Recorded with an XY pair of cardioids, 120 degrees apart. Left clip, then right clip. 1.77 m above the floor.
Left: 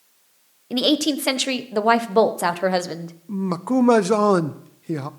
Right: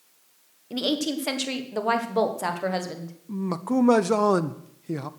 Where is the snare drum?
I don't hear a snare drum.